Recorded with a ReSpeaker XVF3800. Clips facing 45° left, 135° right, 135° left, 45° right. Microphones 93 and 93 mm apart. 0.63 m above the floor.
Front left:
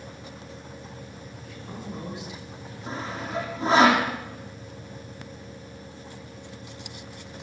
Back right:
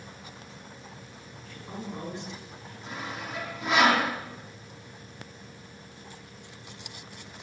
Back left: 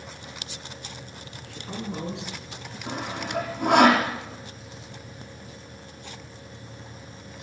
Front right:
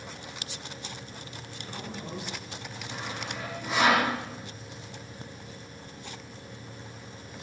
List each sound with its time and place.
1.4 s a woman speaking: 140° left, 6 m; by 2.8 s 130° left, 7.5 m
2.9 s sawing: 105° left, 7 m